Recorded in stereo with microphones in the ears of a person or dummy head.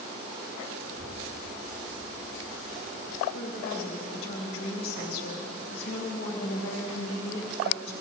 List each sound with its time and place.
0.8 s a child speaking: 20° right (ahead or behind), 2.5 m; by 3.2 s 10° left (ahead or behind), 4.5 m
3.3 s a woman speaking: 75° left (ahead or behind), 3 m